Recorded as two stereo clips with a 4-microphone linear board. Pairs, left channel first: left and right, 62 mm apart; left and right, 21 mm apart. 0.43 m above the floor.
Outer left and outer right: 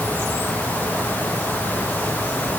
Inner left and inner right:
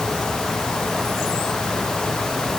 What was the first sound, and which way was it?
Only background noise.